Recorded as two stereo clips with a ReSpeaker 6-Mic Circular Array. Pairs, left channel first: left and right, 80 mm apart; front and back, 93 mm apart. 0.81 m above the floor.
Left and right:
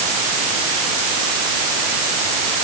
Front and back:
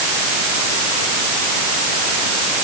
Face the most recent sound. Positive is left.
No sound to turn to.